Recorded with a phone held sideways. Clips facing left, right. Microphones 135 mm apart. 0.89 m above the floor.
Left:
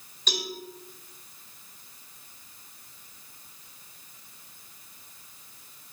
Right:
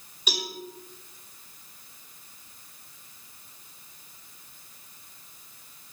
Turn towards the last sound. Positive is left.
turn(degrees=-10)  # may be behind; listen again after turning